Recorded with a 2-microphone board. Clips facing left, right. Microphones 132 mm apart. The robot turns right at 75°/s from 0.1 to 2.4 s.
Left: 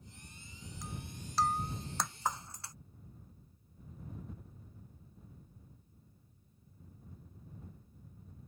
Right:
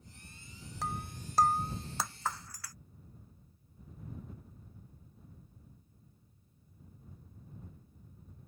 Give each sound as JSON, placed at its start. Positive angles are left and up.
{"t": 0.8, "sound": "breaking glass", "side_deg": -85}